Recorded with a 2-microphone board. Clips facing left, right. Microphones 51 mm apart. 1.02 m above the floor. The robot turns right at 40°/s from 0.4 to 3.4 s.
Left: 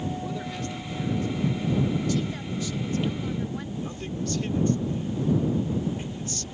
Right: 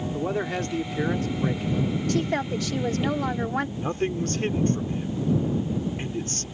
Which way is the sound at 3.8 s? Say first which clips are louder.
Right 6 dB; 50° right (ahead or behind).